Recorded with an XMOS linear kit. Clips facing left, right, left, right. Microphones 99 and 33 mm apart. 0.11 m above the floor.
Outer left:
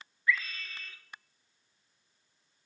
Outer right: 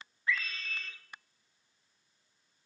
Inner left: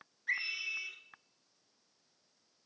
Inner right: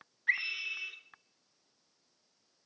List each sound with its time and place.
0.3 s a scream: 25° right (ahead or behind), 1.4 m